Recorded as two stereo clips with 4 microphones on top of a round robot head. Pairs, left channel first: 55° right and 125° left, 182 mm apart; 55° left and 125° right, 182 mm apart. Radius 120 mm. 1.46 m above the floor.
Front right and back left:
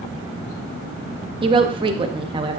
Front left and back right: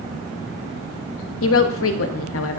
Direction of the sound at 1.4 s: 55° left.